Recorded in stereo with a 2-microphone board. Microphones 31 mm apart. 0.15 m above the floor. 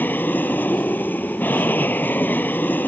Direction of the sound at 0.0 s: 65° left (ahead or behind).